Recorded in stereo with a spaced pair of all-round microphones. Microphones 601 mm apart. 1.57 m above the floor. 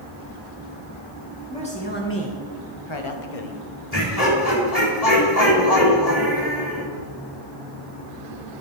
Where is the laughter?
85° left, 3 m.